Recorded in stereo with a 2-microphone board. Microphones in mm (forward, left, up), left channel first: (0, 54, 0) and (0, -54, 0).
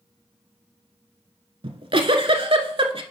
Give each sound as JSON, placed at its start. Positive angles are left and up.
{"t": 1.6, "sound": "a giggle", "side_deg": -55, "distance_m": 0.9}